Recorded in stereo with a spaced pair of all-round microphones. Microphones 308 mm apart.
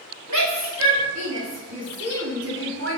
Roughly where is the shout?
Right.